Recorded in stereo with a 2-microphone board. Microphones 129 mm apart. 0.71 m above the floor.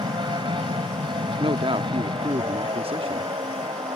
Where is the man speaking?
45° right (ahead or behind).